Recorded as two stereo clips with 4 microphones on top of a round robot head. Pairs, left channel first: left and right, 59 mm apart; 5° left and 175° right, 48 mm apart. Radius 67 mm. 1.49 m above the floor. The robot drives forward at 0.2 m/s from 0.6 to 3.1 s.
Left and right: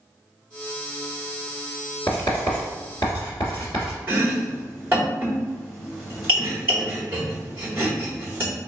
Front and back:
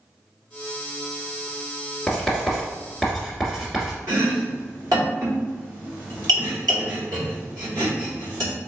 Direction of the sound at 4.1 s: 160° right.